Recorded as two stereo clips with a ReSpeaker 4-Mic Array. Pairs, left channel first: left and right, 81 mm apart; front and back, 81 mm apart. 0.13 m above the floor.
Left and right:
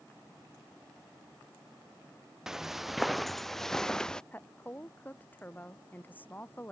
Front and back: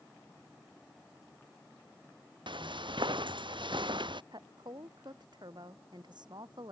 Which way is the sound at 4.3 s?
155° left.